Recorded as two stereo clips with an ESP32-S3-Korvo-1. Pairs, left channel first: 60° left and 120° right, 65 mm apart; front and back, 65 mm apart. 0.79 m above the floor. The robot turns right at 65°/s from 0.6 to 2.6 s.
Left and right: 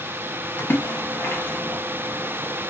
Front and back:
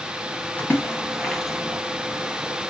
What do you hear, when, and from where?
0.6 s a splash: 45° left, 0.7 m; by 1.8 s 120° left, 0.7 m